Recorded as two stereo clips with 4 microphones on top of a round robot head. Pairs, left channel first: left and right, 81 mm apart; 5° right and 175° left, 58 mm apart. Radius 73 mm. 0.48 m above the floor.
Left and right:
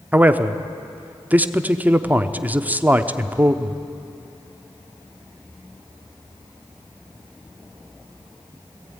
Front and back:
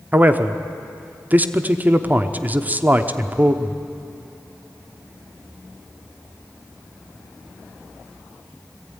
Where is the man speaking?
145° right, 1.0 m.